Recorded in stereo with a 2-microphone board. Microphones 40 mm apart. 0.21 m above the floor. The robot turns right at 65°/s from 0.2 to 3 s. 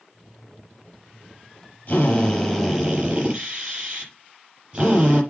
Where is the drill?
135° left, 5.5 m; by 5.2 s 155° right, 5.5 m.